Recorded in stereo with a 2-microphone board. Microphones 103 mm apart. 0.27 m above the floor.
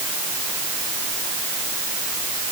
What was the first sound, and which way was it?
Only background noise.